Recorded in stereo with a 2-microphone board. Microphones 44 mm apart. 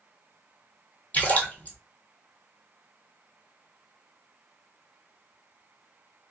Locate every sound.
1.1 s a splash: 35° left (ahead or behind), 1.3 m